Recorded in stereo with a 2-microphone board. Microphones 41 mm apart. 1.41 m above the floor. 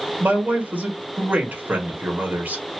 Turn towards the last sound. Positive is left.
turn(degrees=-35)  # may be behind; listen again after turning